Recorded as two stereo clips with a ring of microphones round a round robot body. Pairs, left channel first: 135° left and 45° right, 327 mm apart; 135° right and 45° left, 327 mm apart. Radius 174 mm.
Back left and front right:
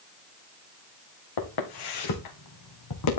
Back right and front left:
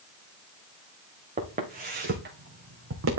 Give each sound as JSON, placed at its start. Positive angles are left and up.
{"t": 1.4, "sound": "footsteps", "azimuth_deg": 115, "distance_m": 3.0}